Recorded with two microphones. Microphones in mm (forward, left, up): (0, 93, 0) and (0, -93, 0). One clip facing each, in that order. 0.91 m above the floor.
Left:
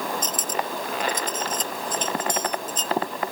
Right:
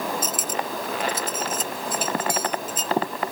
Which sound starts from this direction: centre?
Cutlery clinking, at 0.2 s.